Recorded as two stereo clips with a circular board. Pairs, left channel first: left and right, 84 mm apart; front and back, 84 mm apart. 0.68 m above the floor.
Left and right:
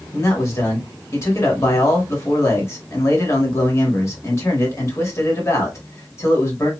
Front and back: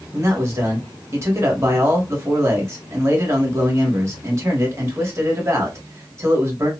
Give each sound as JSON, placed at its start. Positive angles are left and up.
{"t": 0.1, "sound": "a man speaking", "azimuth_deg": 135, "distance_m": 1.3}